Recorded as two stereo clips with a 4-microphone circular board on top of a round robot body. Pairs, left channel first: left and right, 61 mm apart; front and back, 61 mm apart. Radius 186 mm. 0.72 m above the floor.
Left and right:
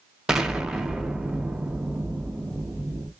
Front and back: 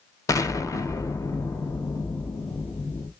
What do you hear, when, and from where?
0.3 s an explosion: 10° right, 0.8 m